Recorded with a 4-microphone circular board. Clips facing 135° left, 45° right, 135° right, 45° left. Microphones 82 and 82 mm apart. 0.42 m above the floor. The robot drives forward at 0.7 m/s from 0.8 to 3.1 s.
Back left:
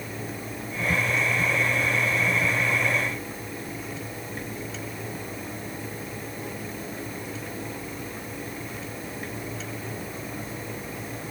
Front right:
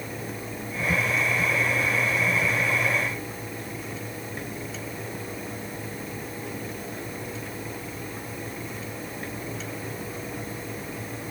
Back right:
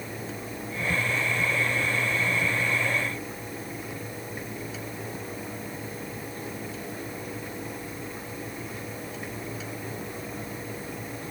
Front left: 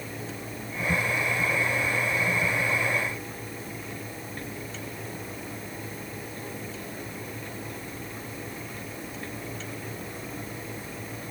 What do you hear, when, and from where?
Only background noise.